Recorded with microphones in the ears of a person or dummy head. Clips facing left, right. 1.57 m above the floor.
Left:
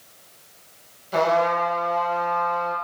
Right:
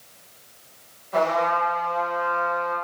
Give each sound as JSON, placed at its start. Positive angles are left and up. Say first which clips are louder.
{"t": 1.1, "sound": "a trumpet", "louder": "left 2 dB", "side_deg": 50, "distance_m": 0.8}